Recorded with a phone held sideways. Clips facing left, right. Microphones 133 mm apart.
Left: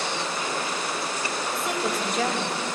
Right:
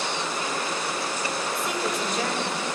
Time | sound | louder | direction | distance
1.5 | a woman speaking | left 3 dB | centre (ahead or behind) | 3 m